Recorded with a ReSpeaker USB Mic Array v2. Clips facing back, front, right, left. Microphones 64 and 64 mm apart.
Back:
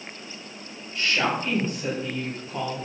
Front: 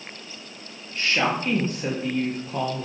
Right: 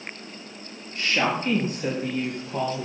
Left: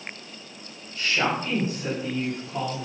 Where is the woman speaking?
55° right, 4.5 m; by 2.9 s 40° right, 4.5 m.